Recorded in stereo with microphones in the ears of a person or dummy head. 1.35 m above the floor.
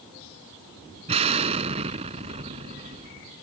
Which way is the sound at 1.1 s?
35° right (ahead or behind).